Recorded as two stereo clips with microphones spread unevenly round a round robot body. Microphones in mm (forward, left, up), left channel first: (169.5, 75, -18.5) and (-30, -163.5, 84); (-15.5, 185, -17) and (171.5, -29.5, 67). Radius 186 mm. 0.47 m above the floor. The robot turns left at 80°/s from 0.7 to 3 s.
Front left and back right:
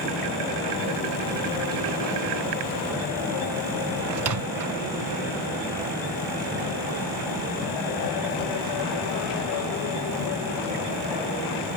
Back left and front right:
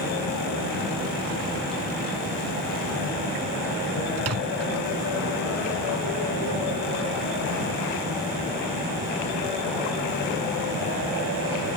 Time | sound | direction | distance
4.2 | a microwave | 105° right | ?